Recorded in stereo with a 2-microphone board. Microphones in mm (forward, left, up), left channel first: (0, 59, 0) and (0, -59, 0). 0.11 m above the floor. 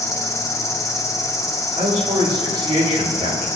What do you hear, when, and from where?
0.0 s an insect: 25° left (ahead or behind), 6.5 m
1.8 s a man speaking: 45° right (ahead or behind), 8 m